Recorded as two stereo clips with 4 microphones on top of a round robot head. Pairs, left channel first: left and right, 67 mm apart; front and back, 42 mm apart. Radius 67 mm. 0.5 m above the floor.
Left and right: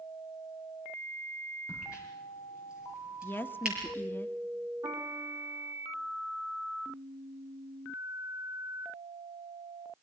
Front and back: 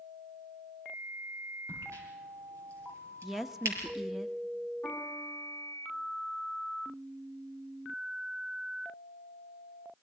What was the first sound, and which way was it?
A crack, 170° right.